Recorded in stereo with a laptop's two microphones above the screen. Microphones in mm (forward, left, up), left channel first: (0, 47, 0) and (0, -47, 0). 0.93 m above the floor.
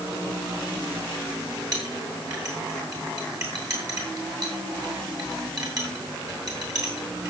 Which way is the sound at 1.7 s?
40° right (ahead or behind).